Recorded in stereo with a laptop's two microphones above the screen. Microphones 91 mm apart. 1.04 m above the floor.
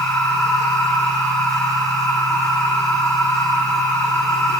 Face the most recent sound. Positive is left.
turn(degrees=35)  # may be behind; listen again after turning